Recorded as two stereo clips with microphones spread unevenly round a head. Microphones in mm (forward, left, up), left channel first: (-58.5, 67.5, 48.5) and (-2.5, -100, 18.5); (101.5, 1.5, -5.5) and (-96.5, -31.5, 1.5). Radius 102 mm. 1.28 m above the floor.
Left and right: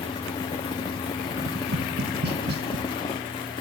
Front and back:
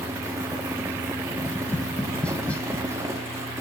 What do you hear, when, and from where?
0.0 s a fan: 125° left, 0.8 m
1.4 s tapping: 75° right, 0.7 m